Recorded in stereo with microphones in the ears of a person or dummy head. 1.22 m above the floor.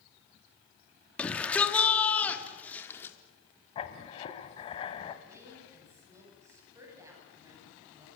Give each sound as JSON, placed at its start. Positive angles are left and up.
{"t": 1.2, "sound": "a shout", "side_deg": 5, "distance_m": 3.5}
{"t": 3.8, "sound": "writing", "side_deg": 30, "distance_m": 2.5}
{"t": 5.2, "sound": "a woman speaking", "side_deg": -20, "distance_m": 9.5}